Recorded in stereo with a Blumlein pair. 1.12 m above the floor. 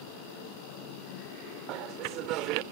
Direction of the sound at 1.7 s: 40° right.